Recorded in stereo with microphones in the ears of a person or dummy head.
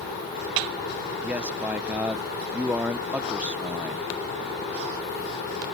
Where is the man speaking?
10° right (ahead or behind).